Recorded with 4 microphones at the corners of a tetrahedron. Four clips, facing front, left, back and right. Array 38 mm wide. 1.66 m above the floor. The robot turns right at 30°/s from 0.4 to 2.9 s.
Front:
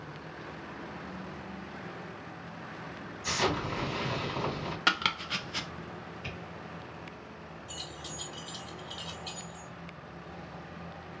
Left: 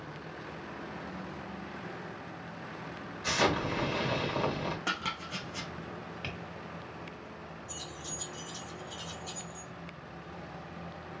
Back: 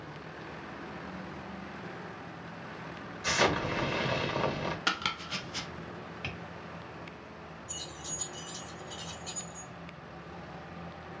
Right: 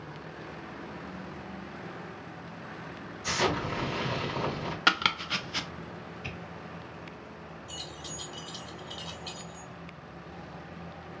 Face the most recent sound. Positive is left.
turn(degrees=-60)